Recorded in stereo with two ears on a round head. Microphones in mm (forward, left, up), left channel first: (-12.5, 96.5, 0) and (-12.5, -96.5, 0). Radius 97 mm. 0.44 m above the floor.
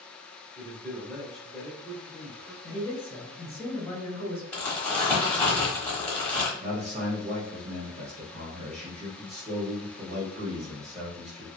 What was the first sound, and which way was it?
A man speaking, centre (ahead or behind).